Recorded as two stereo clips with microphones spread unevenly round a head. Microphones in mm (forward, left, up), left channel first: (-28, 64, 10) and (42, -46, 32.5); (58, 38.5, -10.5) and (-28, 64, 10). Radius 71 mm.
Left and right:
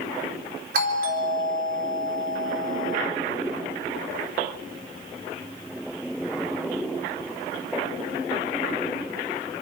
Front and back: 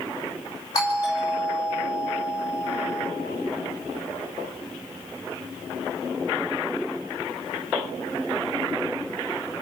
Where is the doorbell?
85° right, 4 m.